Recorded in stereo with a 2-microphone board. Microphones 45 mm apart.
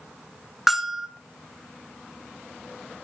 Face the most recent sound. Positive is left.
turn(degrees=-5)  # may be behind; listen again after turning